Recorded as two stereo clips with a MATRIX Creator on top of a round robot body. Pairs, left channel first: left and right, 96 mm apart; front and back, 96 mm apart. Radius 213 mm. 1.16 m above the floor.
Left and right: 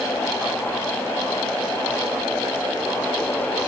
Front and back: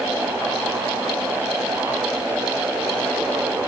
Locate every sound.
Only background noise.